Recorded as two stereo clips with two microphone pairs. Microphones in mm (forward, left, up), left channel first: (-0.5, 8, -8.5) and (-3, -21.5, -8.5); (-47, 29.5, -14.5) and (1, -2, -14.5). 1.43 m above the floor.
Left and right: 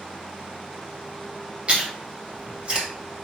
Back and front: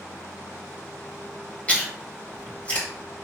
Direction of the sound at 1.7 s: 150° right.